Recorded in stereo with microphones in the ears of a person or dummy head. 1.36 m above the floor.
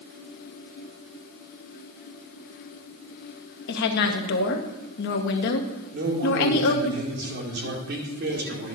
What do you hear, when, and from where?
3.7 s a woman speaking: 65° left (ahead or behind), 1.1 m
5.9 s a man speaking: 60° right (ahead or behind), 2 m